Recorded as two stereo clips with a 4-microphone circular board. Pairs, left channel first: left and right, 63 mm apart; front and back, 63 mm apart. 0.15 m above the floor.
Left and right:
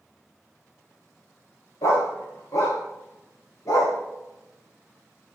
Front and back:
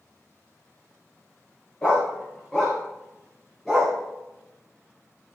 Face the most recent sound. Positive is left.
turn(degrees=85)